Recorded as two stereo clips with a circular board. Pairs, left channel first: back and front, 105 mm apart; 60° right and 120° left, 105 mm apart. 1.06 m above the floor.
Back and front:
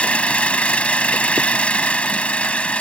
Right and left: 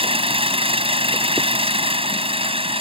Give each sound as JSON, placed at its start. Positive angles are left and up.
{"t": 0.0, "sound": "an engine running", "azimuth_deg": 105}